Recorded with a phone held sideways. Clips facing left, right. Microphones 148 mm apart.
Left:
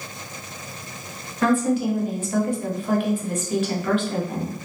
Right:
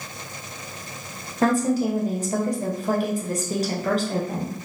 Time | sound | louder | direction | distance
1.4 | a woman speaking | even | 40° right (ahead or behind) | 0.7 m